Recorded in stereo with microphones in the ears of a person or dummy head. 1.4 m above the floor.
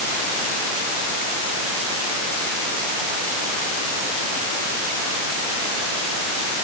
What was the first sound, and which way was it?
Only background noise.